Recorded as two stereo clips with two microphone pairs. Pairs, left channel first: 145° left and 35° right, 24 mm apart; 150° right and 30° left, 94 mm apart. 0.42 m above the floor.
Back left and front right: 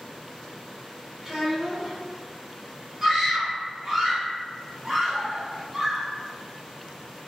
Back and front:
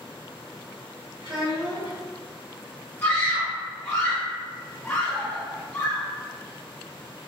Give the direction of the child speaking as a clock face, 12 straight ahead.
10 o'clock.